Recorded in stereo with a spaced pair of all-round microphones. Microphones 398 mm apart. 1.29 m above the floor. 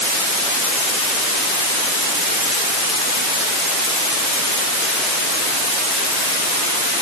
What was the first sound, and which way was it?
Only background noise.